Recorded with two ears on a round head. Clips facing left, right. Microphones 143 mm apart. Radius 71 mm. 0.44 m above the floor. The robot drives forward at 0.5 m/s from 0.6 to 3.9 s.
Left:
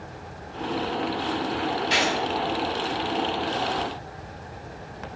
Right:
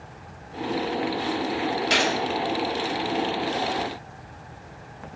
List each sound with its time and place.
1.9 s a gunshot: 65° right (ahead or behind), 3 m